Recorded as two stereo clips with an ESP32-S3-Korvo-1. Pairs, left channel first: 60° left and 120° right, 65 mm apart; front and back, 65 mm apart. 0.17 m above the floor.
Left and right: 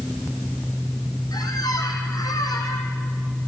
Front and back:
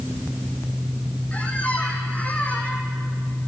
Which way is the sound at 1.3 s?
70° left.